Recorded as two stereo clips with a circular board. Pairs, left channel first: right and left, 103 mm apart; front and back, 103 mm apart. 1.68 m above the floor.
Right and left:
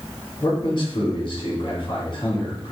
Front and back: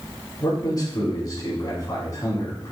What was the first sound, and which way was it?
A man speaking, 50° right.